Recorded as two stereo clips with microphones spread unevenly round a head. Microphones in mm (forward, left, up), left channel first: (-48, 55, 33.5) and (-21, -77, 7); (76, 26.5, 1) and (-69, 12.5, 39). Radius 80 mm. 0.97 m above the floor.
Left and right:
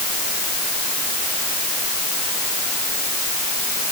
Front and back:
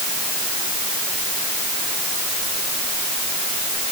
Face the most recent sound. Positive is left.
No sound to turn to.